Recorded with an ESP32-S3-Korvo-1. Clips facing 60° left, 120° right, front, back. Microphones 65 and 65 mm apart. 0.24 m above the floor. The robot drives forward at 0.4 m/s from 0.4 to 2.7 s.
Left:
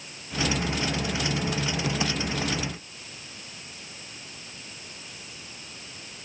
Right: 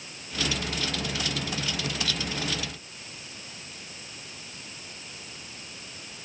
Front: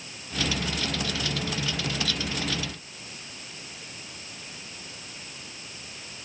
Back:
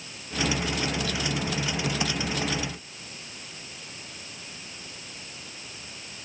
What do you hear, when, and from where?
Only background noise.